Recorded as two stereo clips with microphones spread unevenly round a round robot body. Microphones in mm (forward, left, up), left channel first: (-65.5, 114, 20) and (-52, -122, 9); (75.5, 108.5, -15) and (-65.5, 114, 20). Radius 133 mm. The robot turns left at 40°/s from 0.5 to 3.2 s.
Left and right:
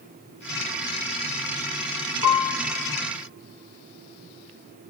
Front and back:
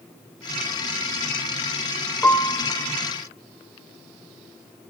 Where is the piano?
80° left, 0.9 m; by 2.6 s 65° left, 0.9 m.